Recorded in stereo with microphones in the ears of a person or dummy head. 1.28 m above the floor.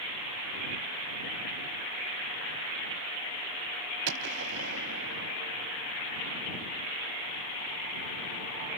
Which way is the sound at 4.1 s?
70° right (ahead or behind).